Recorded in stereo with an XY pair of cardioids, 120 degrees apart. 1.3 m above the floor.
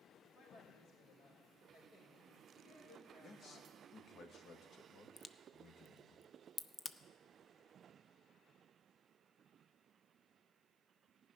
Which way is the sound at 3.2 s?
45° left.